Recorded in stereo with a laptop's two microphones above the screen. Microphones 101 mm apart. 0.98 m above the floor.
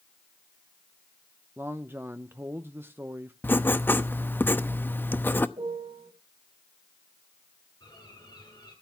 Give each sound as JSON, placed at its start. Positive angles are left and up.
{"t": 1.6, "sound": "a man speaking", "side_deg": -20, "distance_m": 0.8}
{"t": 3.4, "sound": "writing", "side_deg": 20, "distance_m": 0.8}
{"t": 5.6, "sound": "a piano", "side_deg": -55, "distance_m": 4.0}
{"t": 7.8, "sound": "a bird", "side_deg": 45, "distance_m": 10.0}